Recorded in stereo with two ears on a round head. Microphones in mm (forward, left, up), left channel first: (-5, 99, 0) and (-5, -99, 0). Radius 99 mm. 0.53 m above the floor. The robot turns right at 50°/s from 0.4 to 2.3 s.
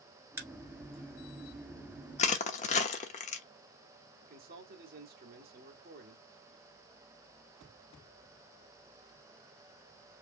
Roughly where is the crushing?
Left.